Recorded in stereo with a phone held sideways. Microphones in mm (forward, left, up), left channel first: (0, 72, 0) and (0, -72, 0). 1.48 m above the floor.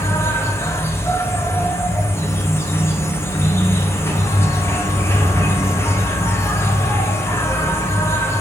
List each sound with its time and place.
0.0 s an insect: 20° left (ahead or behind), 1.3 m